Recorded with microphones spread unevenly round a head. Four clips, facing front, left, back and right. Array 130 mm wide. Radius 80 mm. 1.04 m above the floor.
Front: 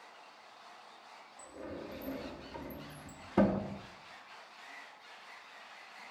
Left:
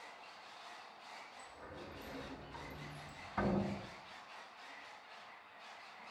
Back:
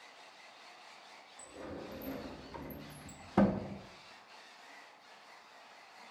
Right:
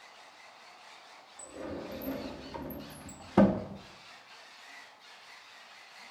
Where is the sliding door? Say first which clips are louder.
Right 15 dB, front 1 dB; 85° right, 2 m.